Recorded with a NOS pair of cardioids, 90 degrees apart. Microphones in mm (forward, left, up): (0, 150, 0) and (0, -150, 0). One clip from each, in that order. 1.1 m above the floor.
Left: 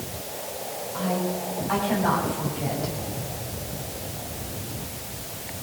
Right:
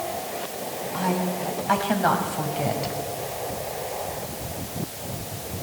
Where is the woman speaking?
55° right, 8 m.